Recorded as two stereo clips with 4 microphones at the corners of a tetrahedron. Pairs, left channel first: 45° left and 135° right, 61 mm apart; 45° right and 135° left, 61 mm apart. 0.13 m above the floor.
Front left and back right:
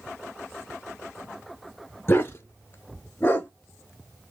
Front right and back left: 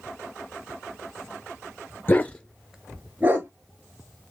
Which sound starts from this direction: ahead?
A dog barking, at 2.1 s.